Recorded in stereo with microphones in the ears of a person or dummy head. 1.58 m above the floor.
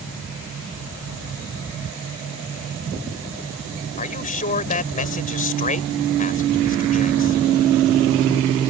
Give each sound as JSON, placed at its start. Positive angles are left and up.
{"t": 4.0, "sound": "a man speaking", "side_deg": 45}